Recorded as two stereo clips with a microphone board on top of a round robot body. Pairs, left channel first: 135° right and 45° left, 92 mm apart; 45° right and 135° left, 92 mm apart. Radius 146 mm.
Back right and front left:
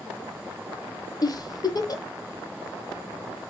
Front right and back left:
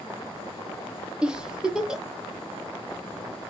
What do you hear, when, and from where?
1.2 s a giggle: 145° right, 1.1 m